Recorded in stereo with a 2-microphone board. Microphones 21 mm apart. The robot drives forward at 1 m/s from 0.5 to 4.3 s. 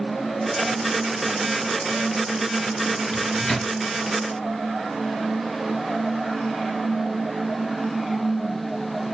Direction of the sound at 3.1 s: 20° left (ahead or behind).